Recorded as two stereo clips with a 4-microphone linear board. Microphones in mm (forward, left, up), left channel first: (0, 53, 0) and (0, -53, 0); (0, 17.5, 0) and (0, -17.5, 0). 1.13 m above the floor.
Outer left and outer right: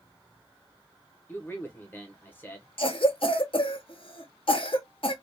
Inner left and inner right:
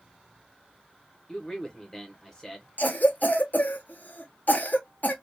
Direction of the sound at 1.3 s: 20° left (ahead or behind).